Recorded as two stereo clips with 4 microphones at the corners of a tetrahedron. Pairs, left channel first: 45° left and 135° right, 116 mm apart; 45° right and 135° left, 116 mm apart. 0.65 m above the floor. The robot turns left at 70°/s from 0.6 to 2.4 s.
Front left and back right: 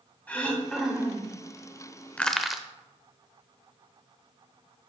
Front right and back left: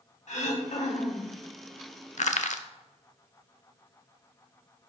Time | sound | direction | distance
0.3 | throat clearing | 30° right | 1.7 m
2.2 | crushing | 30° right | 0.6 m